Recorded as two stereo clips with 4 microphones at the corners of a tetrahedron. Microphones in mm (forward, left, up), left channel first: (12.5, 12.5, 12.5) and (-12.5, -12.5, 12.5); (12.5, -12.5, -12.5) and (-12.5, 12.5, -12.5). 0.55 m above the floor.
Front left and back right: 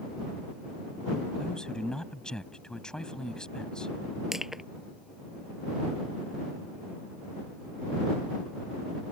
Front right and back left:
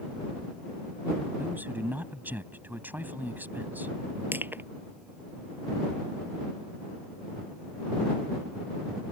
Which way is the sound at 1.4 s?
110° left.